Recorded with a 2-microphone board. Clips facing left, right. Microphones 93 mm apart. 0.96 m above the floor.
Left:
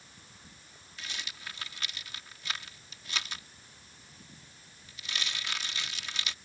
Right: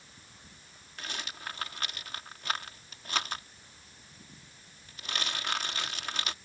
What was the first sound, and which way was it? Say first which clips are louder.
A rattle: right 3 dB; 50° right (ahead or behind).